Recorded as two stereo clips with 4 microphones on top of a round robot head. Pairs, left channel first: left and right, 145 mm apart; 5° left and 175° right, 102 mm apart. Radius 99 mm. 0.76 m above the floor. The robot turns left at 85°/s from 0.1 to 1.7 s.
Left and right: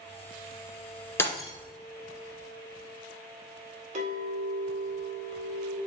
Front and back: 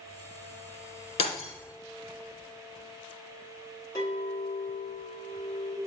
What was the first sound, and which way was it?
Breaking glass, 20° left.